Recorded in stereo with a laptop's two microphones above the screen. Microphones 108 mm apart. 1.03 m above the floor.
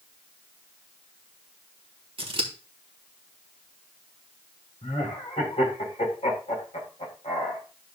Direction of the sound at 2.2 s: 55° right (ahead or behind).